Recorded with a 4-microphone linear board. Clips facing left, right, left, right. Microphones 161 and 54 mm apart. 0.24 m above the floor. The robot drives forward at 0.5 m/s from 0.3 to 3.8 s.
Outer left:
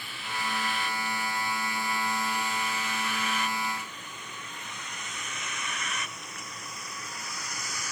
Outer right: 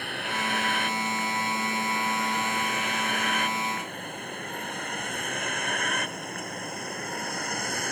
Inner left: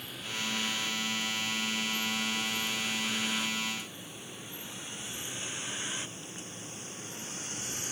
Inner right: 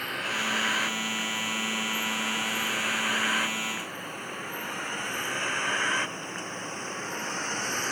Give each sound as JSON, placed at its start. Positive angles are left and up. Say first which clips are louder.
{"t": 0.0, "sound": "a vehicle", "louder": "outer right 4 dB, inner right 8 dB", "side_deg": -70}